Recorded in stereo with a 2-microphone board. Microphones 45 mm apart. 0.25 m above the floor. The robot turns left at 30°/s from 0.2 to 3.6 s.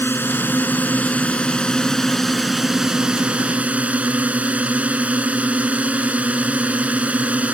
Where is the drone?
65° left; by 7.5 s 35° right.